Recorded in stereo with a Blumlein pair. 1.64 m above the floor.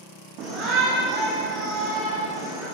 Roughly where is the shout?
Ahead right.